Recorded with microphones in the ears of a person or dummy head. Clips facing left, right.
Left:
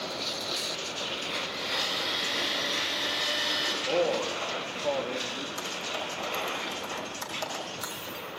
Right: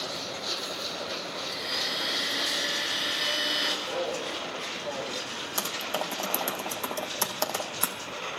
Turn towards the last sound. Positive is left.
turn(degrees=-75)  # may be behind; listen again after turning